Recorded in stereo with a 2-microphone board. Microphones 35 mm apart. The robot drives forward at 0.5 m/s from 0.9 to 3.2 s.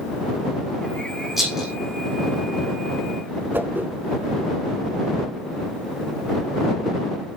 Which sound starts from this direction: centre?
A rattle, at 1.4 s.